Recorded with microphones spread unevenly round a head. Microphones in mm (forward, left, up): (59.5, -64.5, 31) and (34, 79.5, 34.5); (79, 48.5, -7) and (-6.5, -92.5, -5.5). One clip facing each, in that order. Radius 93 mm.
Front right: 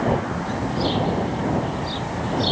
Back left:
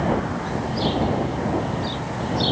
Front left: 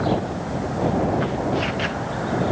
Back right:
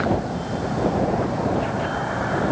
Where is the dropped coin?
I don't hear a dropped coin.